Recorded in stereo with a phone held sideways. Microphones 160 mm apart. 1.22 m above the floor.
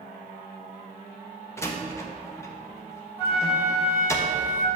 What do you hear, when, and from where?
1.6 s a door slam: 15° left (ahead or behind), 0.9 m
3.2 s a flute: 40° left (ahead or behind), 2.5 m